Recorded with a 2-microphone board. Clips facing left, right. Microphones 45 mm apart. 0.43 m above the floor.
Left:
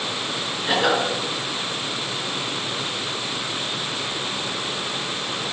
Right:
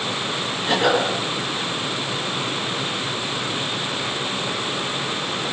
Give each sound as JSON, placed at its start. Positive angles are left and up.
{"t": 0.7, "sound": "a cough", "side_deg": 5, "distance_m": 6.0}